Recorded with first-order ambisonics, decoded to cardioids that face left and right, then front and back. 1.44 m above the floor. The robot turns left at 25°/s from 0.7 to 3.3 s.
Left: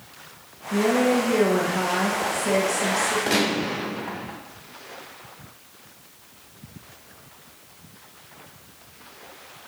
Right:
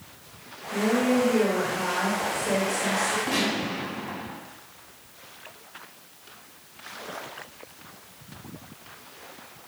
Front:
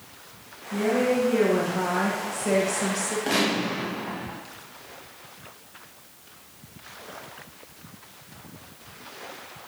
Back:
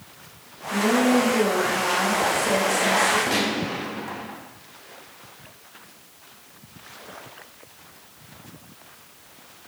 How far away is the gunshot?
About 2.0 m.